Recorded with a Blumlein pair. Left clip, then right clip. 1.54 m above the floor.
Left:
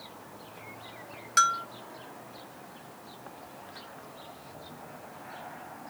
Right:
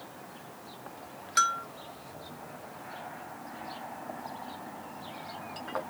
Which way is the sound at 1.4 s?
10° left.